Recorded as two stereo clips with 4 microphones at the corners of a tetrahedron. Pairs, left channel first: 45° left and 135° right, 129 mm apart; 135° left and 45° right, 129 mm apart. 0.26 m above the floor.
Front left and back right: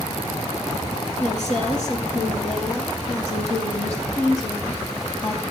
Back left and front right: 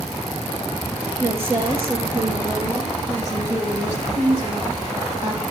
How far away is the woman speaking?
About 3 m.